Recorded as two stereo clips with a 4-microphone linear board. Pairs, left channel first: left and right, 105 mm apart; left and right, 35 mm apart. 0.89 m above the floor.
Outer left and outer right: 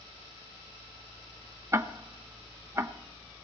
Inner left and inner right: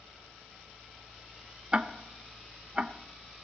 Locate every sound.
1.7 s ticking: 25° right (ahead or behind), 0.9 m